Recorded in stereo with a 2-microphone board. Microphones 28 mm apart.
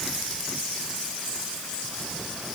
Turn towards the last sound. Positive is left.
No sound to turn to.